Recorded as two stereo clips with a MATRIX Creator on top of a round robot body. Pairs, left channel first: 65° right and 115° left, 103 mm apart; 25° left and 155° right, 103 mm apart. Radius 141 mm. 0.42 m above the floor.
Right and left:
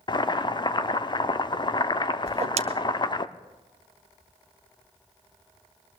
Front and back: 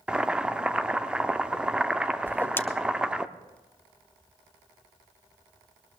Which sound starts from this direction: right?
Boiling, at 0.1 s.